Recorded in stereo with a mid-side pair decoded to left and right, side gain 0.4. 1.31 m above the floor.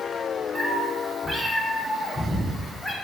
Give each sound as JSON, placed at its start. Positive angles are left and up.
{"t": 0.6, "sound": "a cat meowing", "azimuth_deg": -30, "distance_m": 1.9}